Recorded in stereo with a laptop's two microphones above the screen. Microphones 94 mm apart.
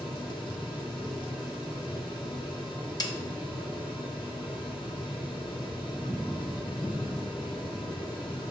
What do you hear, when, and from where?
0.0 s a fan: 70° left (ahead or behind), 2.0 m
3.0 s a snare drum: 45° left (ahead or behind), 0.9 m